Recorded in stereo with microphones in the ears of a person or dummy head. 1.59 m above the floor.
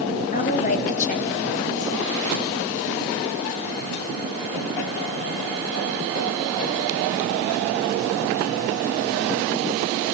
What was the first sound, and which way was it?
A woman speaking, 40° left (ahead or behind).